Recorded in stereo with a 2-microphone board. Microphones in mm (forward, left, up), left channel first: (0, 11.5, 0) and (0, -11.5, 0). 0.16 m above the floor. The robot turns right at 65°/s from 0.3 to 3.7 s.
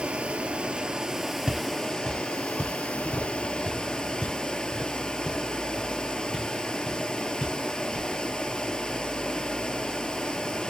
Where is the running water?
75° right, 0.7 m; by 10.7 s 145° left, 0.7 m.